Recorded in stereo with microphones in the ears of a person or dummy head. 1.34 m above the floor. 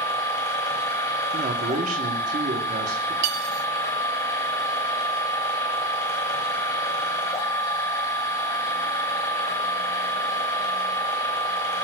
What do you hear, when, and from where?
0.0 s a machine running: 20° left (ahead or behind), 1.9 m
1.3 s a man speaking: 40° right (ahead or behind), 1.1 m
3.2 s cutlery clinking: 55° right (ahead or behind), 1.8 m